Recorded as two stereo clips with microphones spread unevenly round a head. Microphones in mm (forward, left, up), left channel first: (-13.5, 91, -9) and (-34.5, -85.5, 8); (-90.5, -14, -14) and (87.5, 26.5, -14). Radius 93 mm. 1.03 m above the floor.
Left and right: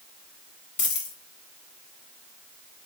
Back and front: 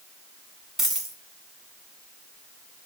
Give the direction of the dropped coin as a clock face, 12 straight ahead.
9 o'clock.